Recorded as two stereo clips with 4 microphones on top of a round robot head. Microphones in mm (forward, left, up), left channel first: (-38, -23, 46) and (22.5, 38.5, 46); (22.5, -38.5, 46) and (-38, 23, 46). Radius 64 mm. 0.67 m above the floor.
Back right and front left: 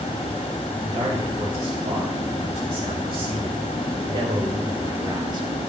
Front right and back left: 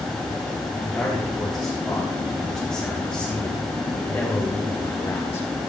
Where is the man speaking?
45° left, 5.5 m; by 5.5 s 10° left, 2 m.